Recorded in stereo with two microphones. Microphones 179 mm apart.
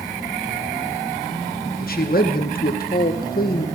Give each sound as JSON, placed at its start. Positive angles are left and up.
{"t": 1.8, "sound": "a man speaking", "side_deg": 55, "distance_m": 1.4}